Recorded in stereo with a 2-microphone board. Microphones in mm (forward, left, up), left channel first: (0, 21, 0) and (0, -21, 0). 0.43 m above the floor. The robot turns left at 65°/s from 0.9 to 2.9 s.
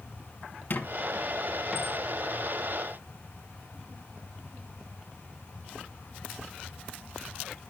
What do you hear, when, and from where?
0.7 s a squeak: 45° left (ahead or behind), 1.8 m; by 2.0 s 25° right (ahead or behind), 1.8 m